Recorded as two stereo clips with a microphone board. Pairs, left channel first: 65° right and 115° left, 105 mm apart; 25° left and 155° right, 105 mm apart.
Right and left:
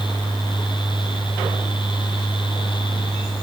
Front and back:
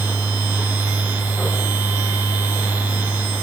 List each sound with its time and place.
Only background noise.